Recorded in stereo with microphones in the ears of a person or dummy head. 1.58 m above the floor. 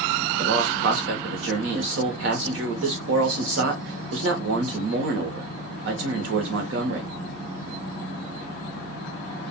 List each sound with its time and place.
0.4 s a man speaking: 65° right (ahead or behind), 0.8 m